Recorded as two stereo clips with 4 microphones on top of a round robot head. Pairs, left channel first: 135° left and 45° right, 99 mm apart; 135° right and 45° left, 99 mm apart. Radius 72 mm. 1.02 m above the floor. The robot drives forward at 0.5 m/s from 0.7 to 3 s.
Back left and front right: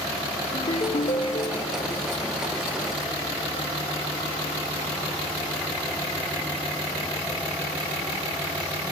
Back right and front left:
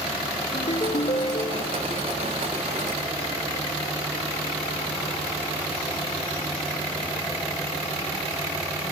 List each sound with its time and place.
0.5 s a ringtone: straight behind, 0.7 m